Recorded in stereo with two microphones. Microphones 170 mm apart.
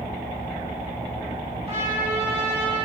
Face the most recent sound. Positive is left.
turn(degrees=-35)  # may be behind; listen again after turning